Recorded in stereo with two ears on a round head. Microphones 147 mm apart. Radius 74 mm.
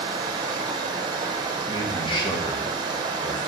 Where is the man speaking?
30° left (ahead or behind), 1.3 m.